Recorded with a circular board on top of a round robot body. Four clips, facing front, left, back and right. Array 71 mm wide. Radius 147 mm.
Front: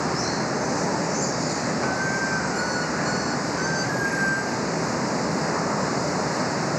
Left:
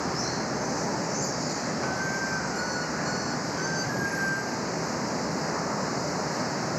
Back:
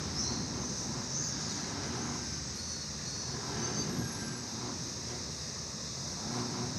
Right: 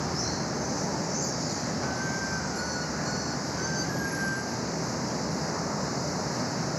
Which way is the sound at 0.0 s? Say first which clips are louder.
Left 2 dB, front 15 dB; 10° left.